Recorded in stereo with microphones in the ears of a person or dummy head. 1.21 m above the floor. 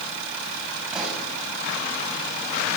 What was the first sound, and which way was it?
A pop, 5° right (ahead or behind).